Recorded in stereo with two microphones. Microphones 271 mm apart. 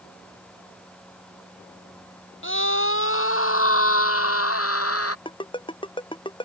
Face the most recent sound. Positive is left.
turn(degrees=20)  # may be behind; listen again after turning